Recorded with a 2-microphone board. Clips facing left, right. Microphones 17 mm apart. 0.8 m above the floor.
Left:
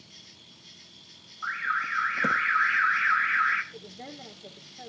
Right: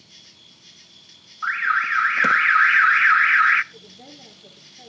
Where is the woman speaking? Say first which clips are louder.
Left 1 dB; 45° left (ahead or behind), 2 m.